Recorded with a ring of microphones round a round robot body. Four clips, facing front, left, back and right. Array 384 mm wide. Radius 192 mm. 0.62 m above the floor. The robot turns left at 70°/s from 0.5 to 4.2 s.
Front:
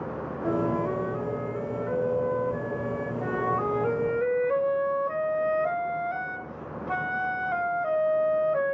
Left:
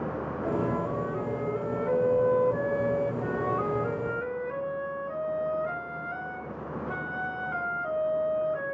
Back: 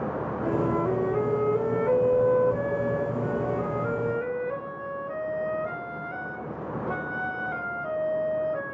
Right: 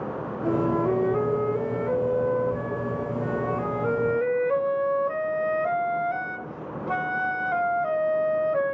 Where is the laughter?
I don't hear laughter.